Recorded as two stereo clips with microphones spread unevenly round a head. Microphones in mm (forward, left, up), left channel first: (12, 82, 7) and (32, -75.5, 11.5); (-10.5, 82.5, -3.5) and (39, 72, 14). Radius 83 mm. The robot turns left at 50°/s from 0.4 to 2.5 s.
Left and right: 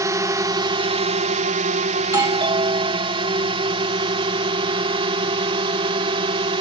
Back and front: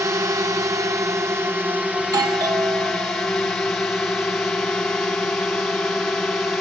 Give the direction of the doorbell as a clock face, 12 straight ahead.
12 o'clock.